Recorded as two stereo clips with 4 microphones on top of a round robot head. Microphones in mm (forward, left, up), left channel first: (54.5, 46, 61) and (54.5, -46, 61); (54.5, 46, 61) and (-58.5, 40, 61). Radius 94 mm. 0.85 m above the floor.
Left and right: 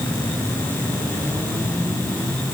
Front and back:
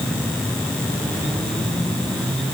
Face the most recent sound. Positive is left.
No sound to turn to.